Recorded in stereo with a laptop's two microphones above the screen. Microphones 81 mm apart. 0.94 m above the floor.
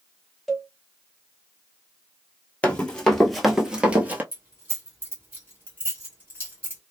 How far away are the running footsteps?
About 1.1 m.